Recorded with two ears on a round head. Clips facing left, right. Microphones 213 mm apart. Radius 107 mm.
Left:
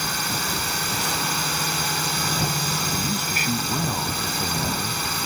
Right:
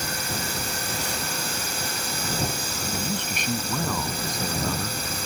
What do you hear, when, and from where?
0.0 s a drone: 55° left (ahead or behind)
2.9 s a man speaking: 5° left (ahead or behind)